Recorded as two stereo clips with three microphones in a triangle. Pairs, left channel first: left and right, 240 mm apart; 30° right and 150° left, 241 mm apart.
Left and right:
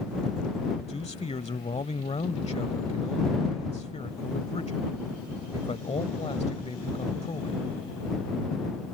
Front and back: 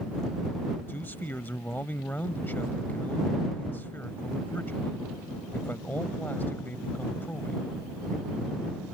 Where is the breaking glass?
I don't hear breaking glass.